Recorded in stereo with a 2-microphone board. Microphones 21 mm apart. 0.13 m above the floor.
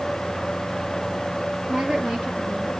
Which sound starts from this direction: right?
A woman speaking, at 1.7 s.